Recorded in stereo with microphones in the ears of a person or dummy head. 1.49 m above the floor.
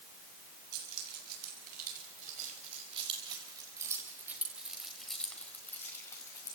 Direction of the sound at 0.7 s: 60° right (ahead or behind).